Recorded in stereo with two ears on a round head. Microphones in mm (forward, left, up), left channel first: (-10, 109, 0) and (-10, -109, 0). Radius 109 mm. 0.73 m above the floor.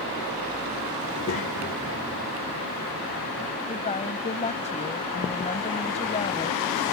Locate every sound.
1.0 s a child speaking: 45° left (ahead or behind); by 3.6 s 80° left
3.7 s a woman speaking: 30° left (ahead or behind)